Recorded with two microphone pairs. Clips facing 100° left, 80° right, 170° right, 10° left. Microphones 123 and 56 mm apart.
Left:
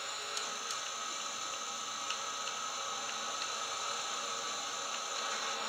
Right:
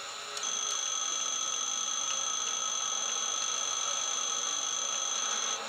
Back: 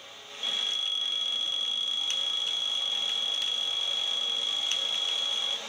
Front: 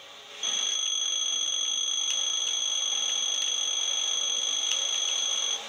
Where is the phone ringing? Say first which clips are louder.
Right 1 dB, even; 75° right.